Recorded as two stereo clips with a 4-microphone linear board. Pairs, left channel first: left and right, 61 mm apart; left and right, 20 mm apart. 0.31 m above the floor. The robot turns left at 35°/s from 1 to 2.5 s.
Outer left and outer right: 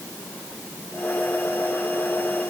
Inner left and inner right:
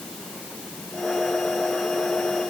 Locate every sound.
Only background noise.